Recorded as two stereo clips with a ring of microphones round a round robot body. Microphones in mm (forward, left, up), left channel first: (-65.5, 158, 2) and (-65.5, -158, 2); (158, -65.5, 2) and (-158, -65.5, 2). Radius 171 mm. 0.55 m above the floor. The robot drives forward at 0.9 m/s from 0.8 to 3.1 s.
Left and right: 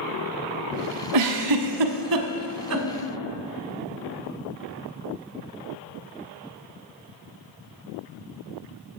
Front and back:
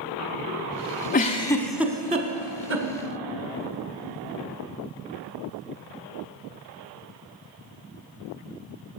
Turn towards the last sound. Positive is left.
turn(degrees=-140)